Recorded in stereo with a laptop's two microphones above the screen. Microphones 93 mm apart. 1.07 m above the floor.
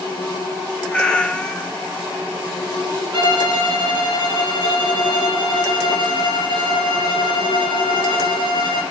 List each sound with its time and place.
0.9 s a cat meowing: 10° left (ahead or behind), 0.6 m
3.1 s a violin: 55° right (ahead or behind), 2.5 m